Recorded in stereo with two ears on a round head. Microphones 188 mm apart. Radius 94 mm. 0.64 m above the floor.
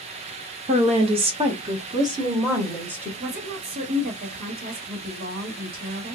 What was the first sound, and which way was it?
A woman speaking, 30° right (ahead or behind).